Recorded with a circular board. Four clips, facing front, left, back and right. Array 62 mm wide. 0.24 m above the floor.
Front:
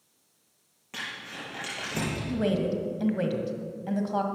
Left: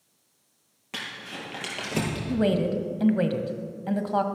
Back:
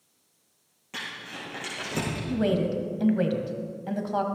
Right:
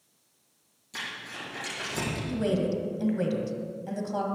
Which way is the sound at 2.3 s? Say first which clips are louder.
Left 4 dB, back 2 dB; 100° left.